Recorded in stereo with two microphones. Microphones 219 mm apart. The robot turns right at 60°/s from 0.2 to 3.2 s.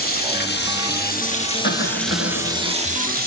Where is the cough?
55° left, 1.4 m; by 2.7 s 120° left, 1.4 m.